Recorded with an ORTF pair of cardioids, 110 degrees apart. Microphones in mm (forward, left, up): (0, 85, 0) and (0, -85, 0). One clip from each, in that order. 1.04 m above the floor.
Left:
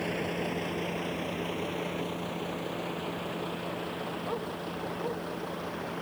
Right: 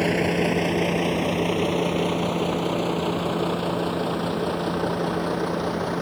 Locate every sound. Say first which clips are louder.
0.0 s a vehicle: right 10 dB; 65° right; by 6.0 s 70° right